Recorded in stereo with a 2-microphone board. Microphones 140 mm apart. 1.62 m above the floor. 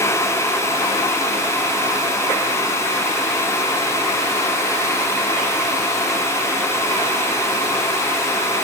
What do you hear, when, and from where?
Only background noise.